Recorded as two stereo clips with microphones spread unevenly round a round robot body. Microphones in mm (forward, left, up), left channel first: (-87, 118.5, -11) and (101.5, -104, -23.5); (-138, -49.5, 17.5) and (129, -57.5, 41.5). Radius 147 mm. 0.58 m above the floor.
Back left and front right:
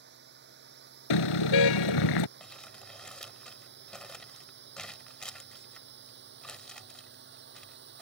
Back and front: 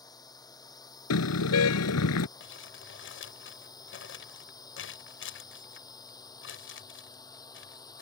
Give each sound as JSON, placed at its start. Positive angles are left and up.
{"t": 0.0, "sound": "a drone", "azimuth_deg": -105}
{"t": 1.1, "sound": "a car horn", "azimuth_deg": 135}
{"t": 2.4, "sound": "crumpling", "azimuth_deg": -140}